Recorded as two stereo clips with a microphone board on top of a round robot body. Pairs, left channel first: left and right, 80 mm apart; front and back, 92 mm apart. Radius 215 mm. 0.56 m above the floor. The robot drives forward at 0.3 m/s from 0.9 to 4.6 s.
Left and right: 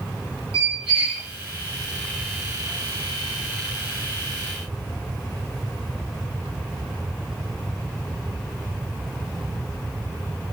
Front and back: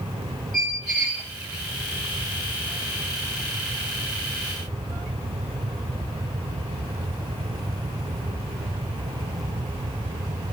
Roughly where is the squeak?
Right.